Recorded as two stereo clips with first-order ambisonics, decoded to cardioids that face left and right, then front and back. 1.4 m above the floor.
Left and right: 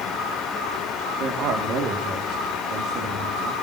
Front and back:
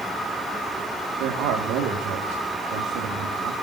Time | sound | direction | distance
1.2 | a man speaking | 140° right | 3.5 m